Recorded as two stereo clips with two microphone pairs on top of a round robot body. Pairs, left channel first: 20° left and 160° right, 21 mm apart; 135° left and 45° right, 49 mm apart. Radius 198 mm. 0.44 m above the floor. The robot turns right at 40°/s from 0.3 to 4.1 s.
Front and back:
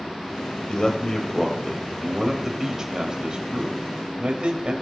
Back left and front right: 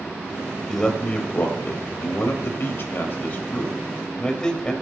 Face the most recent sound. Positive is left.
turn(degrees=-160)